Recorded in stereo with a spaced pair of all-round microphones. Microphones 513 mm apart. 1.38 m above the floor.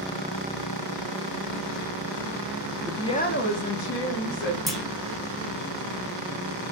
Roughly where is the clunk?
Centre.